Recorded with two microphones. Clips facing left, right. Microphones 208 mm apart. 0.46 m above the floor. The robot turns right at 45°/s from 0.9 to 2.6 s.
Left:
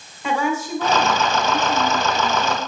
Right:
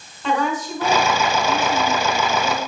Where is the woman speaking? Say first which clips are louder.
Even; 10° left, 2.0 m; by 2.6 s 90° left, 2.0 m.